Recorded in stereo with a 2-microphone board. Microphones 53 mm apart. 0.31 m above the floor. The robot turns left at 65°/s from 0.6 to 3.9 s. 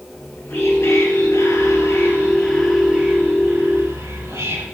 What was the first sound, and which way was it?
Whispering, 135° left.